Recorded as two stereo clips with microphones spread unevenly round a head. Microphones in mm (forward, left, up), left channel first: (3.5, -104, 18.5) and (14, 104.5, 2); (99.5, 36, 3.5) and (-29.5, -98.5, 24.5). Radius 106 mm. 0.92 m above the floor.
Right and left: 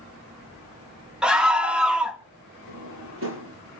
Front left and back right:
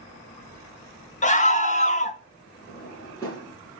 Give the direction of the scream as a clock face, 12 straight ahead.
12 o'clock.